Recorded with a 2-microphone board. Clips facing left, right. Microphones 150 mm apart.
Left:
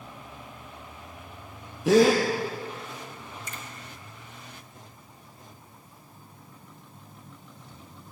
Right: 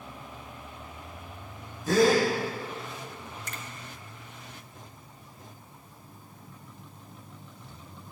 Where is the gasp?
80° left, 5 m.